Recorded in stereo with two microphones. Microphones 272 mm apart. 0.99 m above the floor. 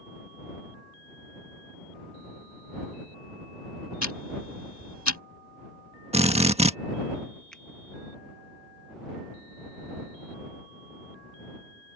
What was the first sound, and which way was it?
Ticking, 80° left.